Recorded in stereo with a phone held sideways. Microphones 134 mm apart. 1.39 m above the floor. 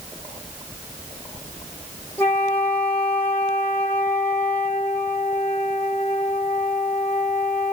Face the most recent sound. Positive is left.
turn(degrees=15)  # may be behind; listen again after turning